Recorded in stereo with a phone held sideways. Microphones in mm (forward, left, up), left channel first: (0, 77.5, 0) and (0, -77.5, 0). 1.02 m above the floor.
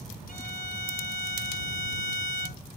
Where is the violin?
65° left (ahead or behind).